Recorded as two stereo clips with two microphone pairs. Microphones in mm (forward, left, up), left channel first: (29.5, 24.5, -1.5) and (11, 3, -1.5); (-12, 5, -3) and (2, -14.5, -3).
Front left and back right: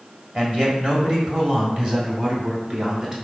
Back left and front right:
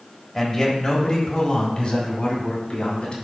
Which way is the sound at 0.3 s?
145° right.